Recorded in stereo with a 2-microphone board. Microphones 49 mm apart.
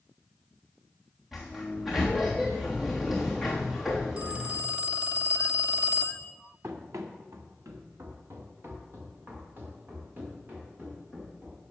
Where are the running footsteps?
75° right (ahead or behind), 2 m; by 11.6 s 30° right (ahead or behind), 7.5 m.